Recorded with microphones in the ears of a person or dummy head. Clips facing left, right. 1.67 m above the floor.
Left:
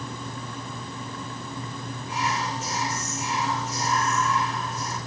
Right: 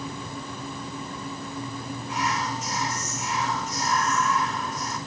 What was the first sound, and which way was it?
Whispering, 5° left (ahead or behind).